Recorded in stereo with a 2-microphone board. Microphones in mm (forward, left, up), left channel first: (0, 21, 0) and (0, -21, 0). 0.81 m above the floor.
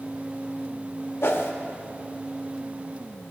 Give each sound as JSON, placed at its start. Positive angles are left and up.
{"t": 1.2, "sound": "a whoosh", "side_deg": 65, "distance_m": 0.7}